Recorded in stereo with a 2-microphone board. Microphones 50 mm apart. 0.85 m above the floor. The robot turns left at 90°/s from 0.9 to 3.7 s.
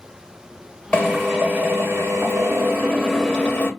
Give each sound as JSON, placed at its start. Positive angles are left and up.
{"t": 0.9, "sound": "a drill", "azimuth_deg": 20, "distance_m": 1.1}